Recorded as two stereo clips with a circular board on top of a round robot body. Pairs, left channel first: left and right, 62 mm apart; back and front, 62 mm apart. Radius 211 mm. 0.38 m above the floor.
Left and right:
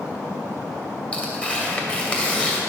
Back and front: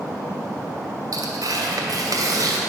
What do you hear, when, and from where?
1.1 s tearing paper: 20° left, 2 m